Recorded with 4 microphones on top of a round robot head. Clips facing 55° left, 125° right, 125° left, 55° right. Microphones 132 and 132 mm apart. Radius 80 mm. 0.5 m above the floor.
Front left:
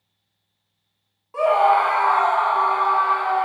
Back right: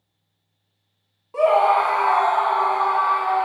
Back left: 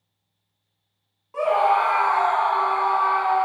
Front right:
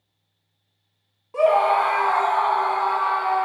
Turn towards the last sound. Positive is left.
turn(degrees=-105)